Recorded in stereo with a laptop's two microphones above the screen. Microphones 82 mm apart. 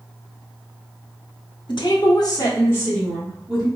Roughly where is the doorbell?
No doorbell in this recording.